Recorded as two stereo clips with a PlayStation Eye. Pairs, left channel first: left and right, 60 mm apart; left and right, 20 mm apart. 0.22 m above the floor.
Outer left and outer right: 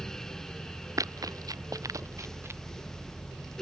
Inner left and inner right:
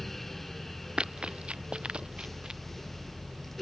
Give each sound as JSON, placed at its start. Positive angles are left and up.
{"t": 1.0, "sound": "running footsteps", "side_deg": -70}